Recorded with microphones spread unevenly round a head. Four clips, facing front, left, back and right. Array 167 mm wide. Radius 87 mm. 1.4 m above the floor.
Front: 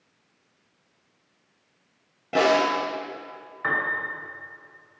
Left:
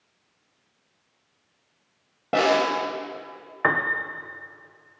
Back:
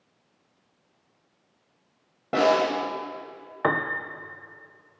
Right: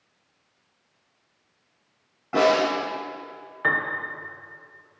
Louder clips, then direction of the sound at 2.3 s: Right 1 dB, front 1 dB; 125° left.